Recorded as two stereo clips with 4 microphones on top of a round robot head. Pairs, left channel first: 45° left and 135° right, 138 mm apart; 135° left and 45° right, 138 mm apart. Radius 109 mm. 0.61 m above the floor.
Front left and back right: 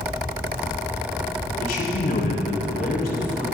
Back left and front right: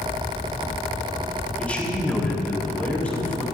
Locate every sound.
1.6 s a man speaking: 55° left, 5 m